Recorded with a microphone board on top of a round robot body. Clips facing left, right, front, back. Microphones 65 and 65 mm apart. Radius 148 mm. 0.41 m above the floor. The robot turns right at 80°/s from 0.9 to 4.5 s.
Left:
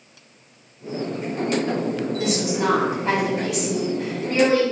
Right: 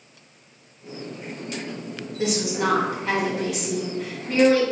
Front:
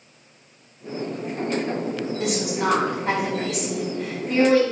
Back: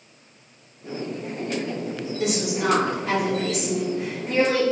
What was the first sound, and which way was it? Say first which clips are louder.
A woman speaking: right 2 dB, back 1 dB; 35° right.